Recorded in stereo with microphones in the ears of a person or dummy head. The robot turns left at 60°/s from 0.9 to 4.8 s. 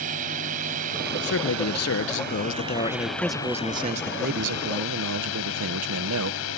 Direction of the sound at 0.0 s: 45° right.